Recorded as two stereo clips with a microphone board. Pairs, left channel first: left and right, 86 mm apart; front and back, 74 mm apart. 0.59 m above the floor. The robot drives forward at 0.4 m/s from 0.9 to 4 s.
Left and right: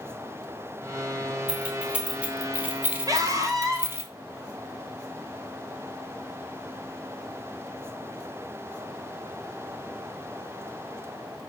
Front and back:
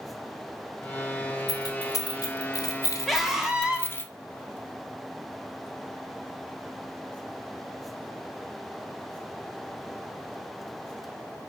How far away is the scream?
About 1.3 m.